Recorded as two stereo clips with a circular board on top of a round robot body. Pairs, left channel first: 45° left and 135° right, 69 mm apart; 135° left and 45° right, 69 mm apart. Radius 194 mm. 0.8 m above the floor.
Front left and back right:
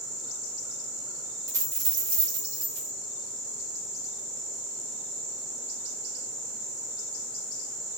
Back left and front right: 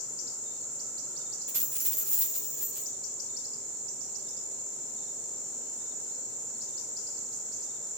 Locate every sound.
1.5 s a dropped coin: 100° right, 0.7 m